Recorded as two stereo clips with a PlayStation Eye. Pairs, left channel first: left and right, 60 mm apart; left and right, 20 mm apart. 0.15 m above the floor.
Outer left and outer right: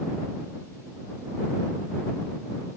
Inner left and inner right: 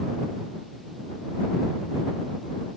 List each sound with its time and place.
Only background noise.